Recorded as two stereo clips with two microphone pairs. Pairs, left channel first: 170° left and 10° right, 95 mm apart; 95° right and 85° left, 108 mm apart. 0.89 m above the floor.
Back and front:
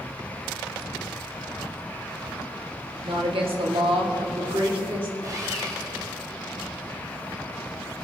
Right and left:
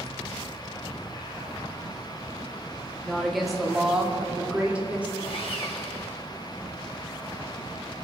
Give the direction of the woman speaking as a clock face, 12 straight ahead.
12 o'clock.